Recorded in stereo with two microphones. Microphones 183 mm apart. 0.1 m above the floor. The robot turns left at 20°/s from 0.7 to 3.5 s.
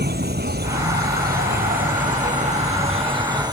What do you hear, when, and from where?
0.0 s an insect: 100° right; by 3.5 s 155° right